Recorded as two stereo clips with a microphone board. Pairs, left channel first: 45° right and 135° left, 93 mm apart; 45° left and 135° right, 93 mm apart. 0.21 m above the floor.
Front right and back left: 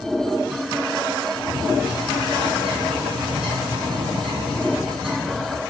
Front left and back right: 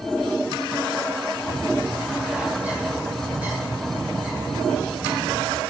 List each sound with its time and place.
1.5 s a bird: 150° left, 6.5 m